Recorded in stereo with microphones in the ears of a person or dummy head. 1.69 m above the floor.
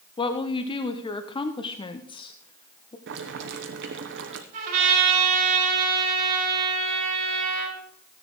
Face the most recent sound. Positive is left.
turn(degrees=-45)  # may be behind; listen again after turning